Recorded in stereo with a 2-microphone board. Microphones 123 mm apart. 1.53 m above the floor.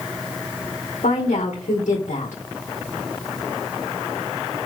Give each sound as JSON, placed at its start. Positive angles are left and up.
{"t": 1.0, "sound": "a woman speaking", "side_deg": 80, "distance_m": 2.0}